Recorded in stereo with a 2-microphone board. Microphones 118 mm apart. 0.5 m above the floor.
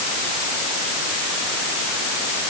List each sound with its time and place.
Only background noise.